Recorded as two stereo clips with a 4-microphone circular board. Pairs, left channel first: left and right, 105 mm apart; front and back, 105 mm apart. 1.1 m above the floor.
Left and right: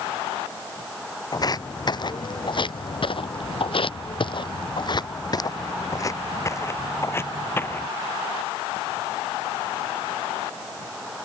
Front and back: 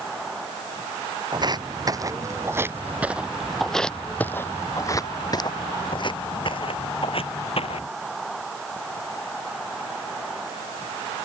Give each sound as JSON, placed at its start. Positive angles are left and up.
{"t": 1.3, "sound": "footsteps", "azimuth_deg": 140}